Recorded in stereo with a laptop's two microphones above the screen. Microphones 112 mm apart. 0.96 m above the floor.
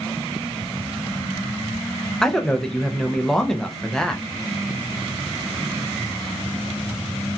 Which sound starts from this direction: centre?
A man speaking, at 2.2 s.